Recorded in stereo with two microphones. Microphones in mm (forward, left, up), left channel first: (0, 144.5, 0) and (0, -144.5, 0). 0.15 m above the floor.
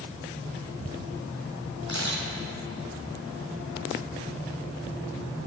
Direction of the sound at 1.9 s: 70° right (ahead or behind).